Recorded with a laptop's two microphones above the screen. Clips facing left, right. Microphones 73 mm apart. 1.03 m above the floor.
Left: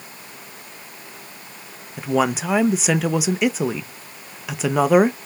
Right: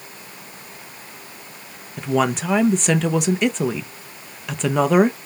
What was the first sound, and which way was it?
A woman speaking, 5° left (ahead or behind).